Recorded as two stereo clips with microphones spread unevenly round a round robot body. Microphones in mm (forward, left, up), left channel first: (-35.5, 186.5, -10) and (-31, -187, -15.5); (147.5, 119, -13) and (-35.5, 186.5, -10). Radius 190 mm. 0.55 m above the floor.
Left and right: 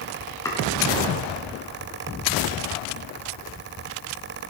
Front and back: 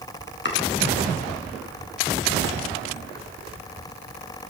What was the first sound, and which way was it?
Chopping, 10° left.